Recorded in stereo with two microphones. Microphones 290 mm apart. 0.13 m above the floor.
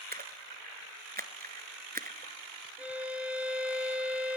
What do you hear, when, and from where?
0.1 s a splash: 30° right (ahead or behind), 0.8 m
2.8 s a violin: 5° right (ahead or behind), 2 m